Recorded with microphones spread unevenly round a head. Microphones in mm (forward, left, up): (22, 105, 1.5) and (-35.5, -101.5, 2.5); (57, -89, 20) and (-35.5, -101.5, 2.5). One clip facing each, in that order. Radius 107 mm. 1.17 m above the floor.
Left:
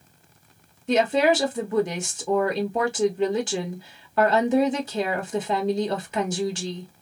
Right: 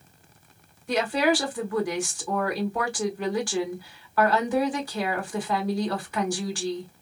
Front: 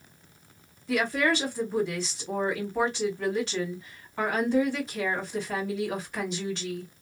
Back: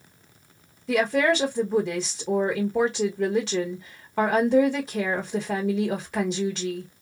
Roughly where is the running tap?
No running tap in this recording.